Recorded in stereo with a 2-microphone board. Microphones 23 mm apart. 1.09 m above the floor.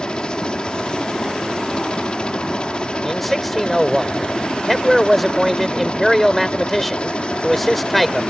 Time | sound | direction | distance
0.0 | a helicopter | 40° left (ahead or behind) | ?
3.0 | a man speaking | 5° left (ahead or behind) | ?